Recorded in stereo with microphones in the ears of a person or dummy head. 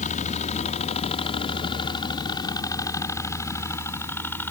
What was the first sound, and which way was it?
A helicopter, 45° left (ahead or behind).